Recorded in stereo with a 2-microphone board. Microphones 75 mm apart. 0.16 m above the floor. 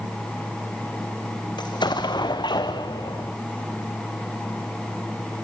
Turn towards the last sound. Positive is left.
turn(degrees=90)